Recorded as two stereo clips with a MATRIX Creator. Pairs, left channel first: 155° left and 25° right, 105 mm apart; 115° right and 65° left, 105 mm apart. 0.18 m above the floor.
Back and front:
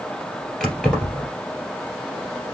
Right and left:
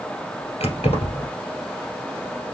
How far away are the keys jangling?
About 2.5 m.